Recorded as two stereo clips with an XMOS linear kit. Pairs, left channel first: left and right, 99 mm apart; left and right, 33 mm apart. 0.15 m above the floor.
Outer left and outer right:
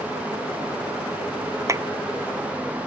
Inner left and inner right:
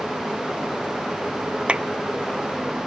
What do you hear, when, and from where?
1.7 s a clap: 30° right (ahead or behind)